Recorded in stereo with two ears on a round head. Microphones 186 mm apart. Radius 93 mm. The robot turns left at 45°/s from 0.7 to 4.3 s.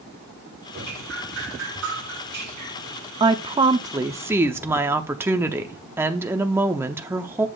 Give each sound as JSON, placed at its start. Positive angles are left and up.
{"t": 0.7, "sound": "dripping", "azimuth_deg": -55, "distance_m": 4.5}
{"t": 3.2, "sound": "a woman speaking", "side_deg": -25, "distance_m": 0.6}